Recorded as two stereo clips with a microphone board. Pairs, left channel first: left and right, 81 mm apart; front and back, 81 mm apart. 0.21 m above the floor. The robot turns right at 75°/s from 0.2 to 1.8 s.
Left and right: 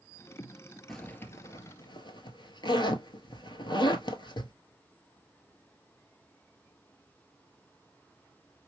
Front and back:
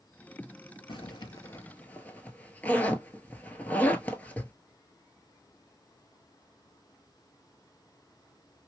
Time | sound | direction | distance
0.9 | a zipper | 5° left | 0.7 m